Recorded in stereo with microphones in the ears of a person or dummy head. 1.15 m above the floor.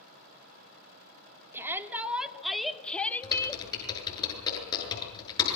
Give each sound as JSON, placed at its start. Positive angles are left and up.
{"t": 1.5, "sound": "a shout", "side_deg": -15, "distance_m": 2.5}
{"t": 3.2, "sound": "typing on a keyboard", "side_deg": 20, "distance_m": 8.5}